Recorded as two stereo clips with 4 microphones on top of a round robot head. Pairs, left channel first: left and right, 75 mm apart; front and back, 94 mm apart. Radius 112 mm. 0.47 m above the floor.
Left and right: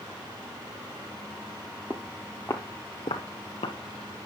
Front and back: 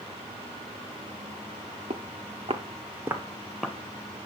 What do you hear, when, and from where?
1.9 s footsteps: 165° right, 0.7 m; by 3.8 s 90° left, 0.8 m